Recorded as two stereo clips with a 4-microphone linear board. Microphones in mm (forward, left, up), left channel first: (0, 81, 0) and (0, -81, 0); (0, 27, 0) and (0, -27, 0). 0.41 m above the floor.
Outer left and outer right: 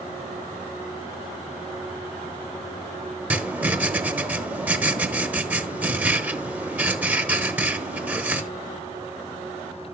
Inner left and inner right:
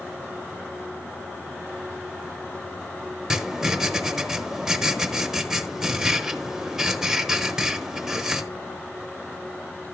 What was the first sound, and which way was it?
Writing, 10° right (ahead or behind).